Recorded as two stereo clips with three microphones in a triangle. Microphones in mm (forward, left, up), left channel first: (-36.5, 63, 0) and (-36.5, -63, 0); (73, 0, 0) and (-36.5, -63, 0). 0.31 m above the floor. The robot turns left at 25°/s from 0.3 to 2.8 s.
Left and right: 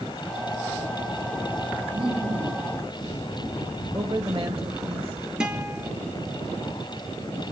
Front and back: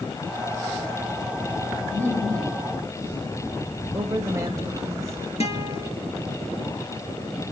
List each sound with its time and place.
1.9 s laughter: 35° right, 5 m; by 2.7 s 55° right, 5 m
3.9 s a woman speaking: 95° right, 1.8 m
5.4 s a guitar: 5° right, 2 m